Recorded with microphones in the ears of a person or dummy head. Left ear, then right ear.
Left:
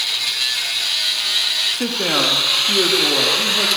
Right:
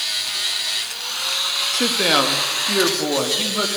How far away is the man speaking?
About 2.5 m.